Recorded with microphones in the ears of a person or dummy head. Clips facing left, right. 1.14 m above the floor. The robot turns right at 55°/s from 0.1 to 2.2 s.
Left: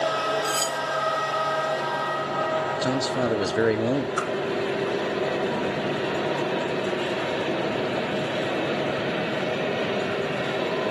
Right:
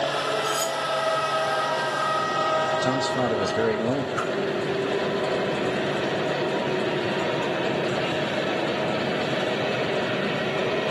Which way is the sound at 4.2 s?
50° left (ahead or behind).